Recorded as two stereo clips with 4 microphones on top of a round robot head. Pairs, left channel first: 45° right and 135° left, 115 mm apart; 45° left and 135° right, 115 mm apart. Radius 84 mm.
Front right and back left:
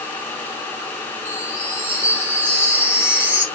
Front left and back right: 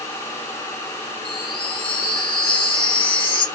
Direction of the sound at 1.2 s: 70° left.